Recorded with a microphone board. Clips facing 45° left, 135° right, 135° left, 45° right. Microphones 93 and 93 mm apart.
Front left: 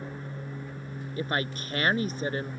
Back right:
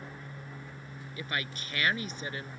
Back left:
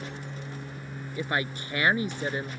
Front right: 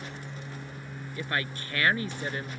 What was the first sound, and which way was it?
An aircraft, 70° left.